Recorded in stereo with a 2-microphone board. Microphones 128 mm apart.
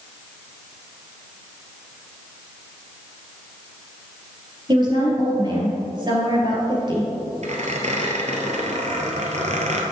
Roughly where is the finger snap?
No finger snap in this recording.